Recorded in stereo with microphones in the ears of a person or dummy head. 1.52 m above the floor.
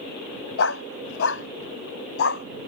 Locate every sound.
0.6 s a dog barking: 70° left (ahead or behind); by 2.5 s 65° left (ahead or behind)